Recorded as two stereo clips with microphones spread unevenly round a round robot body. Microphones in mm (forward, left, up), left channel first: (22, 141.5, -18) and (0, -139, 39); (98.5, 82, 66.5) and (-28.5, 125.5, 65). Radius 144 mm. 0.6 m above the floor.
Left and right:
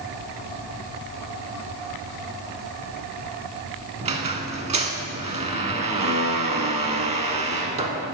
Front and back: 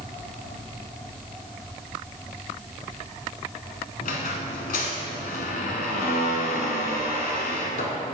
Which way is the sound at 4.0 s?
35° right.